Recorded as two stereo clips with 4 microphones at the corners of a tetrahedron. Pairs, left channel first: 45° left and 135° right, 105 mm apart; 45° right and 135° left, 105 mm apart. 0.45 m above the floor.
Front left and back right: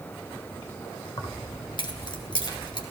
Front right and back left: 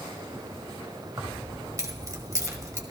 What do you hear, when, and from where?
1.2 s keys jangling: 80° left, 1.4 m